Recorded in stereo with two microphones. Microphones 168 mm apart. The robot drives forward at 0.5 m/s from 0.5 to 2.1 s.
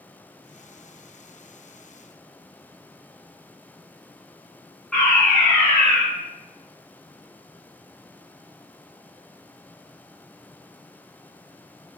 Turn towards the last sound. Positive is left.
turn(degrees=10)  # may be behind; listen again after turning